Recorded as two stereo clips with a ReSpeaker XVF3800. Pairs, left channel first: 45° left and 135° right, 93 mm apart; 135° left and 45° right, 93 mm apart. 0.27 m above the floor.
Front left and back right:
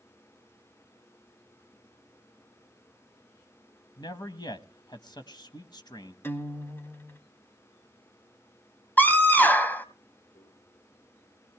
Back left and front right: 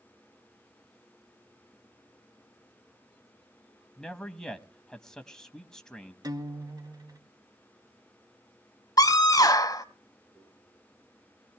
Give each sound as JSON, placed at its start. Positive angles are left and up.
{"t": 4.0, "sound": "a man speaking", "azimuth_deg": 55, "distance_m": 1.5}
{"t": 6.2, "sound": "a guitar", "azimuth_deg": -15, "distance_m": 1.3}
{"t": 9.0, "sound": "a scream", "azimuth_deg": 110, "distance_m": 1.8}
{"t": 10.3, "sound": "a microwave", "azimuth_deg": 50, "distance_m": 9.0}